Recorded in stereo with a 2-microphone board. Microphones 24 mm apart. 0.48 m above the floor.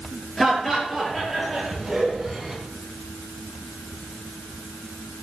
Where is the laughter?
5° left (ahead or behind), 9.5 m; by 2.6 s 5° right (ahead or behind), 9 m.